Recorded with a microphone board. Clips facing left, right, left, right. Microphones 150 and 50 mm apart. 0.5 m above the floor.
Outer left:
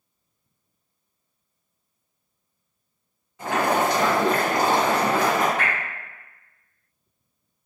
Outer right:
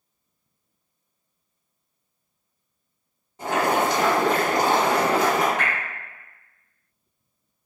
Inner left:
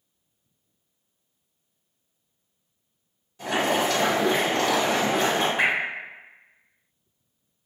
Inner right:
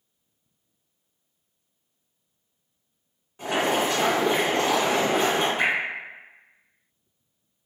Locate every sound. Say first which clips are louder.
3.4 s boiling: even, even; 30° right (ahead or behind), 1.6 m
5.6 s dripping: even, inner left 3 dB; 50° left (ahead or behind), 1.3 m